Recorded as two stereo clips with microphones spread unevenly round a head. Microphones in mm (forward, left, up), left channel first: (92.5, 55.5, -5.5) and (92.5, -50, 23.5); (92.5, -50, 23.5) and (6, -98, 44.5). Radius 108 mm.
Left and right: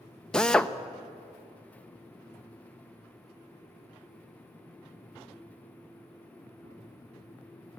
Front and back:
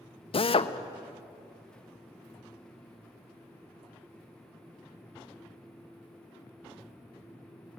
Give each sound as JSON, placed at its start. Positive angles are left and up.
{"t": 0.3, "sound": "a drill", "azimuth_deg": 10, "distance_m": 1.0}